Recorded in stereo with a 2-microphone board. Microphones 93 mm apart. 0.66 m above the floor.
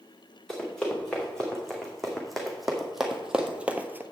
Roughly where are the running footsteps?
Centre.